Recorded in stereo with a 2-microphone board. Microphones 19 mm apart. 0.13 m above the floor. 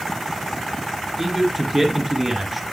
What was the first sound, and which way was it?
A man speaking, 5° right (ahead or behind).